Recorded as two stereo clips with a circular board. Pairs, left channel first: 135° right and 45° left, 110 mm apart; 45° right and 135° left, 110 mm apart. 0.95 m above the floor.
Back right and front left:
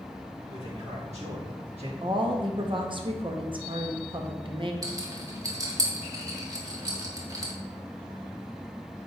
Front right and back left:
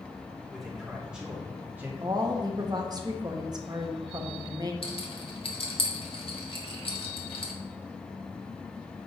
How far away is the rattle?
About 1.5 m.